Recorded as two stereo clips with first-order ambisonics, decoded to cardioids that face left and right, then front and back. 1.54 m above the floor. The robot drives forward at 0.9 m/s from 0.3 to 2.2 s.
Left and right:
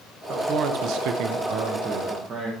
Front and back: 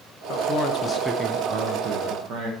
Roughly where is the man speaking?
Ahead right.